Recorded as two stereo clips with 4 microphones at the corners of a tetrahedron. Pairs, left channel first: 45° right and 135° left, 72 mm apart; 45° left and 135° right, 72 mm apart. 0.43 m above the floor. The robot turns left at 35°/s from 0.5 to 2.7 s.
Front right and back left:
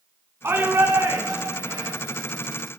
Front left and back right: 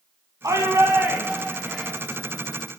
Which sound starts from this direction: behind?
A shout, at 0.4 s.